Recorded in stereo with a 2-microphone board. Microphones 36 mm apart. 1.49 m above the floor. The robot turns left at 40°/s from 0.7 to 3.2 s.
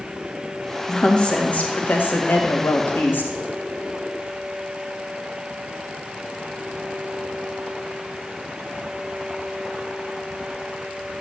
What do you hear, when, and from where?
0.9 s a woman speaking: 165° left, 2 m; by 3.3 s 70° left, 2 m